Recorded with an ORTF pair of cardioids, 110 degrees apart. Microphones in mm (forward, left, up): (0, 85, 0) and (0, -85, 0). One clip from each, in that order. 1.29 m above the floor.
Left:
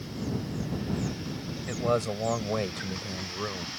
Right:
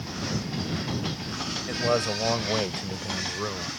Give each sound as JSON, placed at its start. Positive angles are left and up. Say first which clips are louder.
{"t": 1.7, "sound": "a man speaking", "louder": "right 2 dB", "azimuth_deg": -10}